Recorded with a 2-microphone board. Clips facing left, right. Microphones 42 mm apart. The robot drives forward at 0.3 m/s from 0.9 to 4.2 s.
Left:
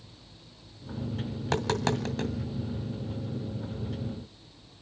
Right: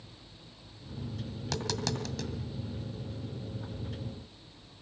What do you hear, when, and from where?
1.4 s tapping: 35° left (ahead or behind), 1.9 m; by 2.3 s 30° left (ahead or behind), 2 m